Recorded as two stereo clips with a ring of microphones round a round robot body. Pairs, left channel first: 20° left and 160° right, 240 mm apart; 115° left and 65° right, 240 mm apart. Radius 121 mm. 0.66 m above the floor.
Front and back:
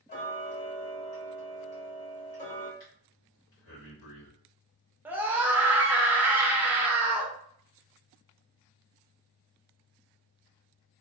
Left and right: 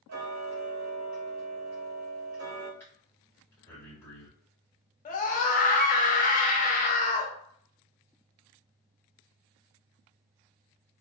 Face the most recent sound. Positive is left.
turn(degrees=125)